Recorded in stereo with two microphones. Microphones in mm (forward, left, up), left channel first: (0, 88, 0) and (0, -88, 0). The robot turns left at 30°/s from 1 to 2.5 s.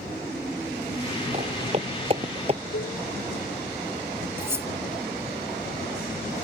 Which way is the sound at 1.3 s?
40° right (ahead or behind).